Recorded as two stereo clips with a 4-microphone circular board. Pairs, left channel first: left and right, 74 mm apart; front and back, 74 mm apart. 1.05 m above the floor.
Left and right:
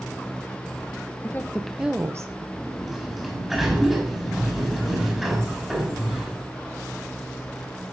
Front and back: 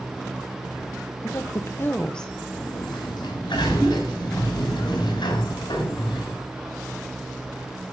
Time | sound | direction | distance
1.2 | a woman speaking | 35° left | 1.2 m
2.6 | a sliding door | 5° right | 3.5 m